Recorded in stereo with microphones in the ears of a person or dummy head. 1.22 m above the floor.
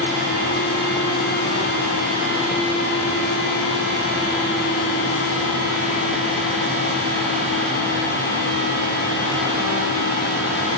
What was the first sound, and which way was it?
Only background noise.